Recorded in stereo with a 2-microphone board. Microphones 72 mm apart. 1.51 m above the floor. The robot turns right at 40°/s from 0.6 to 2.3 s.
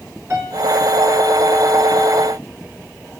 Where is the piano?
40° right (ahead or behind), 7 m.